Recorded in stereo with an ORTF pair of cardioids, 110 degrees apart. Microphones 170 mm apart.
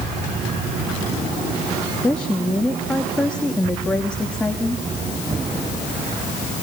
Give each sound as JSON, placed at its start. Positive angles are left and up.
{"t": 2.0, "sound": "a woman speaking", "azimuth_deg": 5, "distance_m": 2.5}